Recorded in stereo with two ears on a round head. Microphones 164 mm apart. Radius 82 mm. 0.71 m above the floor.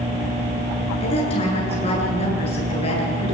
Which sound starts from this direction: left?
A woman speaking, at 1.0 s.